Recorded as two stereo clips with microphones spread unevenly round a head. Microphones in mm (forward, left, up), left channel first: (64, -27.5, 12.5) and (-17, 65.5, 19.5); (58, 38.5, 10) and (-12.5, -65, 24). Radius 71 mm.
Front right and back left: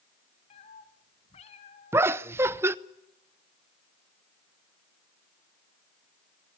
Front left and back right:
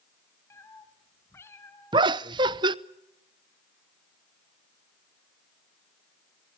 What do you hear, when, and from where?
0.5 s a cat meowing: 15° right, 2.0 m
1.9 s laughter: 165° right, 0.7 m